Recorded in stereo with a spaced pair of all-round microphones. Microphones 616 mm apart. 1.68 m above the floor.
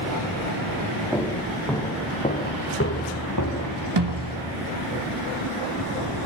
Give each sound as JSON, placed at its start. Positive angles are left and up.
{"t": 1.1, "sound": "footsteps", "side_deg": -5, "distance_m": 5.5}
{"t": 4.0, "sound": "a snare drum", "side_deg": -40, "distance_m": 1.6}